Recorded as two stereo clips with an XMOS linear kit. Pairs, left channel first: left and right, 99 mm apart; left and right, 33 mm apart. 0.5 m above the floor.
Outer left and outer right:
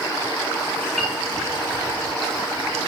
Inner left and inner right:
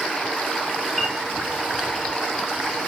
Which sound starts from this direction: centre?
A piano, at 1.0 s.